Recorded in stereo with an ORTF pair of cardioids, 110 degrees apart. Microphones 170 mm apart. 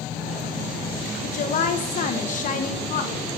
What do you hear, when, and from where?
1.2 s a woman speaking: 50° left, 0.9 m